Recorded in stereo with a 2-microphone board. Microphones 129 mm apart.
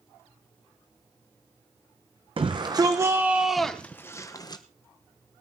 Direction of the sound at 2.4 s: 40° right (ahead or behind).